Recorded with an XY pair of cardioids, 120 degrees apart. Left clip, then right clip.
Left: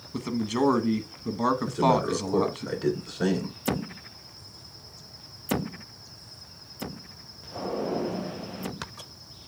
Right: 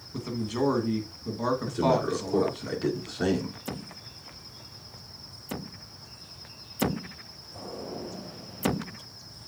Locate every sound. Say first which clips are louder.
0.1 s a man speaking: left 3 dB; 30° left, 1.2 m
1.7 s a man speaking: even; 10° right, 3 m